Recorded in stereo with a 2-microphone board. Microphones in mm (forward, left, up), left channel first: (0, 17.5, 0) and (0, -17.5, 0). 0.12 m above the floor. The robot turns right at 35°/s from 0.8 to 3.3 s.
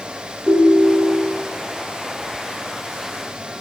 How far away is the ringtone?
About 1.7 m.